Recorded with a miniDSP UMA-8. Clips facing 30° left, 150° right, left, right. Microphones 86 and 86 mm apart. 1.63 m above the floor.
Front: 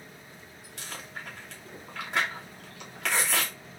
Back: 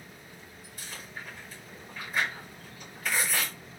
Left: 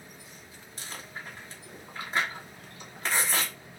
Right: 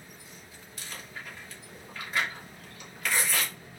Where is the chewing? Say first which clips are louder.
Front 2 dB, left 1 dB; 30° left, 3 m.